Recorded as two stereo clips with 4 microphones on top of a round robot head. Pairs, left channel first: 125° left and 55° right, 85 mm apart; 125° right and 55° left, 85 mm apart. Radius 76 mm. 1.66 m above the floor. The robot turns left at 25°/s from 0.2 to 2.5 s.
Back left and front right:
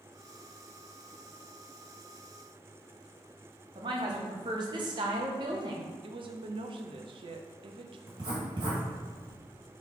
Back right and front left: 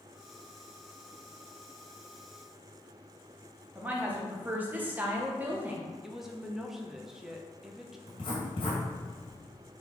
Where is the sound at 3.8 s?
15° right, 1.0 m.